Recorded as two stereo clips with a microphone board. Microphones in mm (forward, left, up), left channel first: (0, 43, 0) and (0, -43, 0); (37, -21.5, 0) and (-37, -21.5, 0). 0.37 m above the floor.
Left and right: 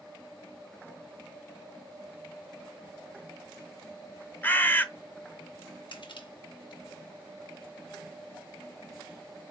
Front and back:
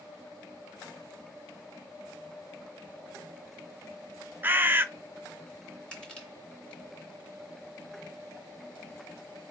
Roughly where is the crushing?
Left.